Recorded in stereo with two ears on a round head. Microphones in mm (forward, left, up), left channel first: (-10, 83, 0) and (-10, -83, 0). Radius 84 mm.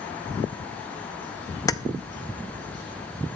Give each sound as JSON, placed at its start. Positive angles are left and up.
{"t": 1.7, "sound": "keys jangling", "side_deg": 20, "distance_m": 0.6}